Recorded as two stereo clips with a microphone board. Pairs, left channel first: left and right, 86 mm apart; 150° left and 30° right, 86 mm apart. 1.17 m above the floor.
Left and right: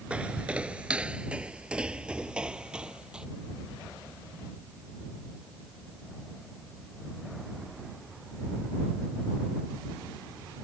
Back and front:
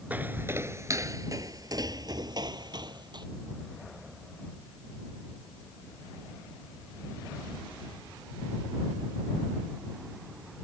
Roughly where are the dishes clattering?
I don't hear dishes clattering.